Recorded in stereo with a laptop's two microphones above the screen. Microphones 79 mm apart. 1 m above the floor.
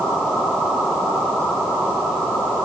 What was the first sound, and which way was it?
Only background noise.